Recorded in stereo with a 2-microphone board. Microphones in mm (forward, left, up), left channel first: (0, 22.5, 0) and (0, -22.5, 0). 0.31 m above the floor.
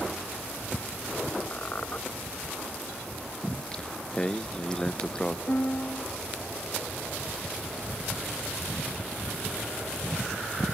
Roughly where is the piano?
Left.